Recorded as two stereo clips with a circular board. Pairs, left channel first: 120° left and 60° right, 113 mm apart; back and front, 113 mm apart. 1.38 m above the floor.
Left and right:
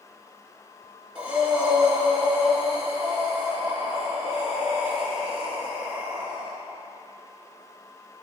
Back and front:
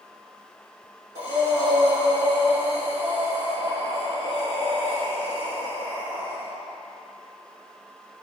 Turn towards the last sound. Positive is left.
turn(degrees=20)